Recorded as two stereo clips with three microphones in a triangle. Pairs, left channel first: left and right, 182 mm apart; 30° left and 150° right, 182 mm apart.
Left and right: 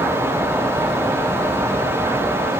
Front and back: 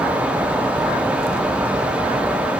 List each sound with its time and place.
Only background noise.